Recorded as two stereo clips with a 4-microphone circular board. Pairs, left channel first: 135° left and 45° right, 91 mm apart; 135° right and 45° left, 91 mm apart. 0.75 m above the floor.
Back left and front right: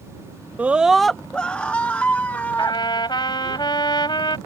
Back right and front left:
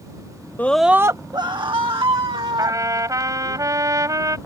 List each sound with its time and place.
0.6 s a scream: 95° right; by 3.6 s 65° left
2.6 s a trumpet: 100° left